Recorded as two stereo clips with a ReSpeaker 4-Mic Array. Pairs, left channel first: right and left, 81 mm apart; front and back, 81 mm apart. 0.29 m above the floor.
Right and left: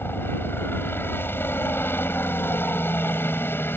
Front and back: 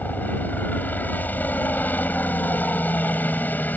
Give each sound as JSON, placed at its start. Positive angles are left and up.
{"t": 0.0, "sound": "a helicopter", "azimuth_deg": -50}